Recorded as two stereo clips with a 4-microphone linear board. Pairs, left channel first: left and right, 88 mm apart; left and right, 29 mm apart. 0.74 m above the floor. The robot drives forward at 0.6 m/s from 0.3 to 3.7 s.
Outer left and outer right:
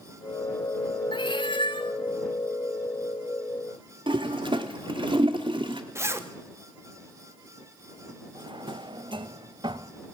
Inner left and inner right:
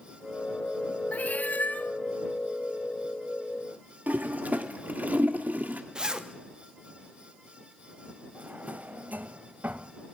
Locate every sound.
1.1 s a cat meowing: 60° left (ahead or behind), 1.2 m
4.1 s a toilet flushing: 60° right (ahead or behind), 1.6 m
6.0 s a zipper: 30° right (ahead or behind), 1.3 m
8.3 s a drawer: 60° right (ahead or behind), 0.9 m